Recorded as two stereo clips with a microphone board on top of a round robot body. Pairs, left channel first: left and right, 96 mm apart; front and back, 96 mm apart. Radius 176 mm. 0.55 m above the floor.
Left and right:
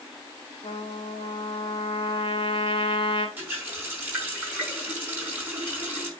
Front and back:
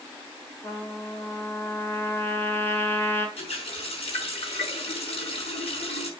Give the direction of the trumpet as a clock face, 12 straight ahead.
10 o'clock.